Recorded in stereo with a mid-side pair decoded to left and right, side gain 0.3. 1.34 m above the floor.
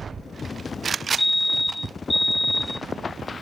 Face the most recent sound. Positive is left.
turn(degrees=25)